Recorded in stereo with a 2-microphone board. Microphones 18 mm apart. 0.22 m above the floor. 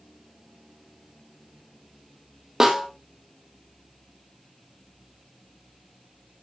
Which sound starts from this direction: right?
A snare drum, at 2.6 s.